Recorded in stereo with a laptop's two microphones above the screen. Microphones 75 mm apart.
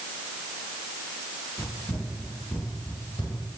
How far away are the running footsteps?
About 2 m.